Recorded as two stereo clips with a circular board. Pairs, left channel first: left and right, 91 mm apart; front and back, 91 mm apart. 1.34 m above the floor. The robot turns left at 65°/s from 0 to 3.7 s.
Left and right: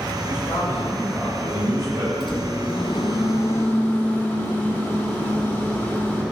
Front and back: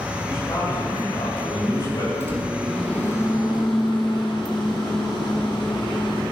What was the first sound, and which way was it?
A man speaking, 70° left.